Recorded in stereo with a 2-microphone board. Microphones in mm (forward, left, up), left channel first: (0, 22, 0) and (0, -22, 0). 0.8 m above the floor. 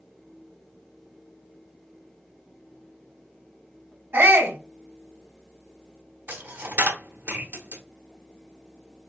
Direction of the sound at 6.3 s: 55° right (ahead or behind).